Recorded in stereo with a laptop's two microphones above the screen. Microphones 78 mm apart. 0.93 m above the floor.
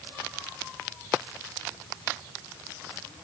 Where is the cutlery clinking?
No cutlery clinking in this recording.